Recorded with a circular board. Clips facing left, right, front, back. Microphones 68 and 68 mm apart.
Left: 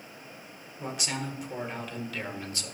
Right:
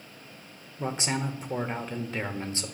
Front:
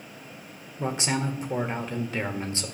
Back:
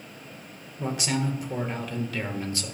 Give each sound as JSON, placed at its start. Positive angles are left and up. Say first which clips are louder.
{"t": 0.8, "sound": "a man speaking", "louder": "right 4 dB, even", "azimuth_deg": -45, "distance_m": 1.2}